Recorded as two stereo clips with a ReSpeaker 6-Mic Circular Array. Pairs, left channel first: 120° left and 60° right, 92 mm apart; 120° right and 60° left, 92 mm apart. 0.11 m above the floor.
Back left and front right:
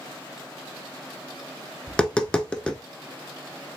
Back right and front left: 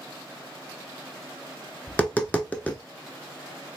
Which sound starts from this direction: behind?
Tapping, at 1.9 s.